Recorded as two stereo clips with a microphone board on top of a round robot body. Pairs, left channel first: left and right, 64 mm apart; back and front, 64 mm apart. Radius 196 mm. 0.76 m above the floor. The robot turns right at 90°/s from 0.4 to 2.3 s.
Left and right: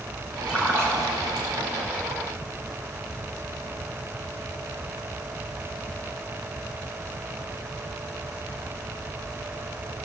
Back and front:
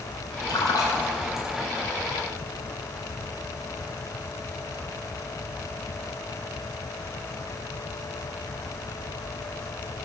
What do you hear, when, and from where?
0.5 s a splash: 170° right, 3 m; by 1.5 s 85° right, 3 m